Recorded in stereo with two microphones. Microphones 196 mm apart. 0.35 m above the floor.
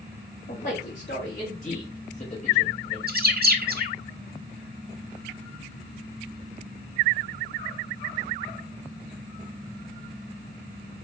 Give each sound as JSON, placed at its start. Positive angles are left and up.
{"t": 0.5, "sound": "a man speaking", "side_deg": 55, "distance_m": 2.0}
{"t": 3.1, "sound": "a bird", "side_deg": -50, "distance_m": 0.6}